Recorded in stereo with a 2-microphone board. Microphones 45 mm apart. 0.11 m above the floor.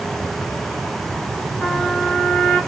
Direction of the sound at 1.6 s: 5° left (ahead or behind).